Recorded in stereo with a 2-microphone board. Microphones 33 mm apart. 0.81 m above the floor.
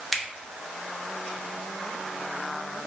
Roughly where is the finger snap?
Centre.